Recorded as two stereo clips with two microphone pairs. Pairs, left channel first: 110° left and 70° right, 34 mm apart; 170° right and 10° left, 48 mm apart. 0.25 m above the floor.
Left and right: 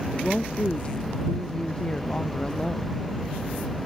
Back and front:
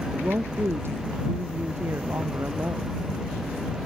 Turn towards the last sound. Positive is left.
turn(degrees=55)